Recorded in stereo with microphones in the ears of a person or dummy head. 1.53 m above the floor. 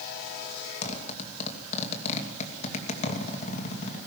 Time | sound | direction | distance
0.8 | a zipper | 40° left (ahead or behind) | 2.5 m